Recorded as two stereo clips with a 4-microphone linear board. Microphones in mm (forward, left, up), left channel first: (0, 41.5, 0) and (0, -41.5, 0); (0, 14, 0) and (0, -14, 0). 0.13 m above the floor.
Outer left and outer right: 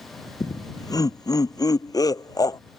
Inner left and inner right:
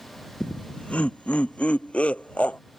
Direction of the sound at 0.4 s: 50° left (ahead or behind).